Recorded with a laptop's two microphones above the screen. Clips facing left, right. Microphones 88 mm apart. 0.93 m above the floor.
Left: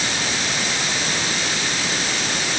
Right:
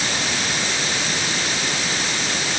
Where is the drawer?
No drawer in this recording.